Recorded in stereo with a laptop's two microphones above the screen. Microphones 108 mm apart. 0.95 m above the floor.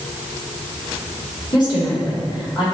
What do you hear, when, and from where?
1.5 s a woman speaking: 40° left (ahead or behind), 3 m